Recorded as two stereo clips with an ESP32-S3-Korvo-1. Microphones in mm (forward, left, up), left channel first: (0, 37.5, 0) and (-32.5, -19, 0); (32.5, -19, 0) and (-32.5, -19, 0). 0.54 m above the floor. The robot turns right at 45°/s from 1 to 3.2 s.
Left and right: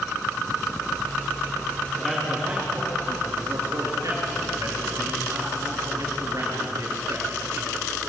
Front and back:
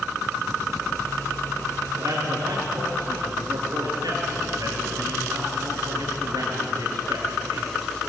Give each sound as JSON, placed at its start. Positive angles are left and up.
{"t": 2.0, "sound": "a man speaking", "azimuth_deg": 145, "distance_m": 8.5}